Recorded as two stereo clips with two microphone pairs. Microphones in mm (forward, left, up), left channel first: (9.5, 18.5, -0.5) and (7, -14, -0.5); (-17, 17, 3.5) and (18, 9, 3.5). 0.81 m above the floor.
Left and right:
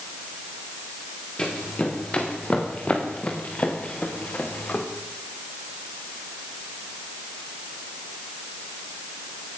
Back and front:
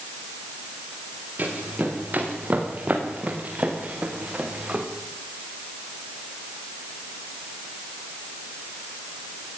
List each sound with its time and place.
1.4 s running footsteps: 25° left, 6.5 m; by 4.9 s 45° left, 4.5 m